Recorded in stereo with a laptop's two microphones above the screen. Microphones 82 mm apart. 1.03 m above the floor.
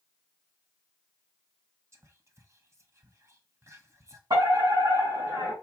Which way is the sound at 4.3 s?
65° right (ahead or behind).